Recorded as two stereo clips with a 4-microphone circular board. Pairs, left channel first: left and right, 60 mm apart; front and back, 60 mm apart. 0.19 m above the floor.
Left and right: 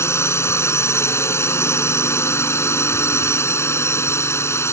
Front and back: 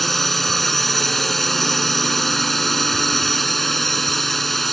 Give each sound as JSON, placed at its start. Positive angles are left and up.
{"t": 0.0, "sound": "a drone", "azimuth_deg": 85}